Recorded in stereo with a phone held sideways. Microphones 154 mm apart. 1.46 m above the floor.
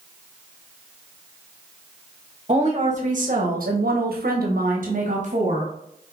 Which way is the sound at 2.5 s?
45° right (ahead or behind).